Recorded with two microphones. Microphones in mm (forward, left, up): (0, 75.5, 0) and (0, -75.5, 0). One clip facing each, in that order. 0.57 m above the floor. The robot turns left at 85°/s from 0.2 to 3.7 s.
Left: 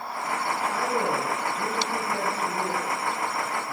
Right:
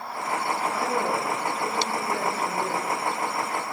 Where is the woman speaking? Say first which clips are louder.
Left 1 dB; 100° left, 4 m; by 3.7 s 155° right, 4 m.